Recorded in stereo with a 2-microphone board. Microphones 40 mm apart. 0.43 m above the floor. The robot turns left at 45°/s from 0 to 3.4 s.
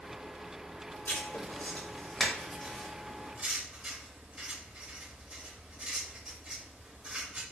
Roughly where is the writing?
Left.